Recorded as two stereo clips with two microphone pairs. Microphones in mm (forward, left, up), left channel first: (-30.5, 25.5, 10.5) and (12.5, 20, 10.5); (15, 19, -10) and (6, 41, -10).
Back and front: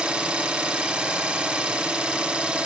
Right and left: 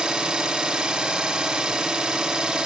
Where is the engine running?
60° left, 0.7 m.